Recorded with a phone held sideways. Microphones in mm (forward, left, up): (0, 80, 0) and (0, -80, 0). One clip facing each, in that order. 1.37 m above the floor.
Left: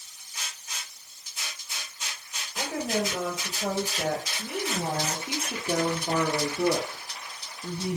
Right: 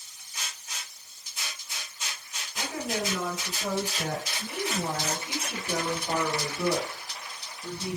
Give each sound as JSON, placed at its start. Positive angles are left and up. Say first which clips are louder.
{"t": 2.5, "sound": "a woman speaking", "louder": "left 3 dB", "side_deg": 50, "distance_m": 5.5}